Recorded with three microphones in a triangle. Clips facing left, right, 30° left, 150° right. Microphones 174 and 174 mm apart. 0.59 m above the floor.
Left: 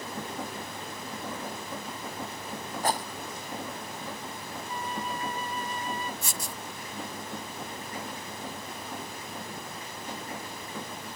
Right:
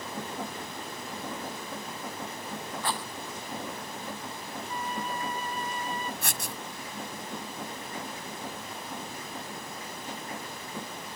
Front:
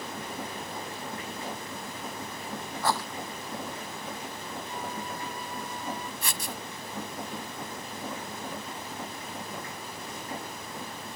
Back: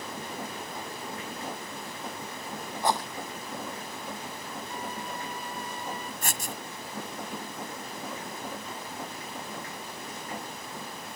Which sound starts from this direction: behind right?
A flute, at 4.7 s.